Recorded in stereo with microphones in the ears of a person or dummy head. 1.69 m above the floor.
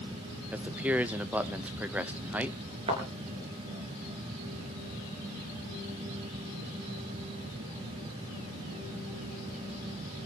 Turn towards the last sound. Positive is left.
turn(degrees=-30)  # may be behind; listen again after turning